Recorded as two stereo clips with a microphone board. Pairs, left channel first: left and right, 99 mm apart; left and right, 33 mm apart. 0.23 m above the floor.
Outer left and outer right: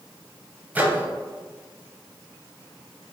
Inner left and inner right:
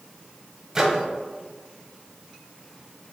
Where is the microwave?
20° right (ahead or behind), 0.7 m.